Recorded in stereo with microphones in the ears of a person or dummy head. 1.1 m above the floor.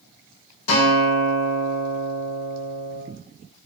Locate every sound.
0.7 s a guitar: 85° left, 2.5 m